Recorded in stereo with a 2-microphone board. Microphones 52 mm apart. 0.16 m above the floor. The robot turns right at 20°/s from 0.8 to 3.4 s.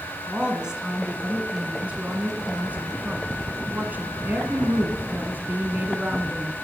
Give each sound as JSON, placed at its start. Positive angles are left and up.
{"t": 0.3, "sound": "a woman speaking", "azimuth_deg": -155, "distance_m": 1.7}